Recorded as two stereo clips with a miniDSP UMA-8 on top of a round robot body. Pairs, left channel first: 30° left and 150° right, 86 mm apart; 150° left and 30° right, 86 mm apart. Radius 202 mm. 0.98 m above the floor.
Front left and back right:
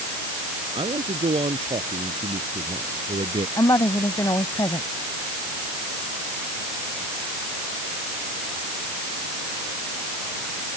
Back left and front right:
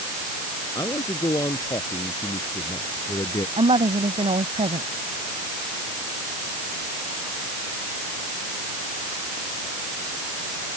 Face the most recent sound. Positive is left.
turn(degrees=-25)